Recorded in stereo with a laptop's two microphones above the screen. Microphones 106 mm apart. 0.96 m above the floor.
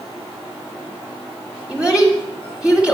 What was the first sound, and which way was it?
A child speaking, 10° right (ahead or behind).